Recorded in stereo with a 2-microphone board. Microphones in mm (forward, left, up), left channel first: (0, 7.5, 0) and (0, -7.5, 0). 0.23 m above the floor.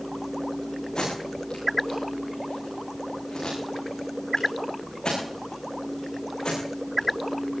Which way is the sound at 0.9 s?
70° left (ahead or behind).